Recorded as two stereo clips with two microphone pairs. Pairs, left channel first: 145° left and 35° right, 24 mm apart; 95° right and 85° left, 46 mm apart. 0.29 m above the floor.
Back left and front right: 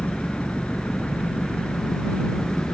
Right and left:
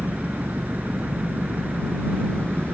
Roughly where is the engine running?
Behind left.